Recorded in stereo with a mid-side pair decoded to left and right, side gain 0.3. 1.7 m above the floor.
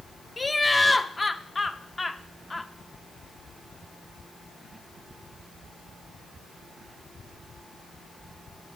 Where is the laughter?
30° left, 0.6 m.